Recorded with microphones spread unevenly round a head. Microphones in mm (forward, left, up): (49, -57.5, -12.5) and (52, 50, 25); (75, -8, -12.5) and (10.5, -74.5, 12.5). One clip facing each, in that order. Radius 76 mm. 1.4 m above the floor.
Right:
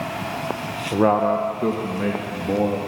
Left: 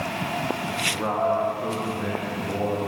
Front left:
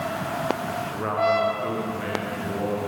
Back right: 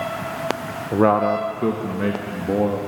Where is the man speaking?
130° right, 1.2 m; by 2.8 s 140° right, 3 m.